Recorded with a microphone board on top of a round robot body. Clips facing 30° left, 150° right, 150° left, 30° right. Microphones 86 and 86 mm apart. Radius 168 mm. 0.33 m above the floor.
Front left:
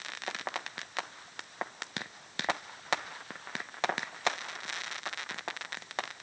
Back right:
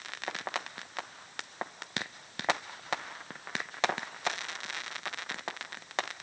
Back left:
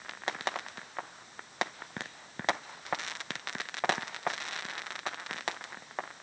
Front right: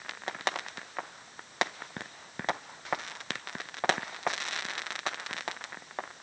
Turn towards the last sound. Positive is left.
No sound to turn to.